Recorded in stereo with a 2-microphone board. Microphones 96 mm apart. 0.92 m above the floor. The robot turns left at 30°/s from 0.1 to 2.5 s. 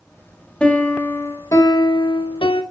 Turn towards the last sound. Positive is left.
turn(degrees=115)